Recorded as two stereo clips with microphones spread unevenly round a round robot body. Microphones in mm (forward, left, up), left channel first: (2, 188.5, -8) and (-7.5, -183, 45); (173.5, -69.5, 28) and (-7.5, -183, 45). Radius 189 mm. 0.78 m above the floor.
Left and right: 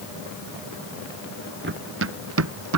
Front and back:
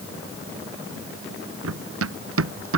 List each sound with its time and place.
1.6 s running footsteps: 150° right; by 2.8 s 140° right